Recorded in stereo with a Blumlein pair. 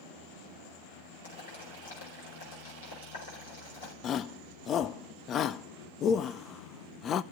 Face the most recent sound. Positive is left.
turn(degrees=25)